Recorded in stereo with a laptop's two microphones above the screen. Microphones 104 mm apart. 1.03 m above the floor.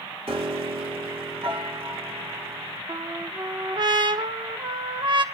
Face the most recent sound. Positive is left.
turn(degrees=-50)  # may be behind; listen again after turning